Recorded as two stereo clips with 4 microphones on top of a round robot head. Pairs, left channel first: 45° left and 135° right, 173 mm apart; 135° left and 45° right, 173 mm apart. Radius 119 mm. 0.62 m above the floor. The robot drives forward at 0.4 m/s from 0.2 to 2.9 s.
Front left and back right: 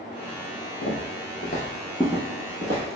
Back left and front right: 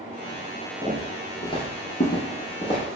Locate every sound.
0.8 s footsteps: 55° left, 1.1 m; by 3.0 s 160° right, 1.0 m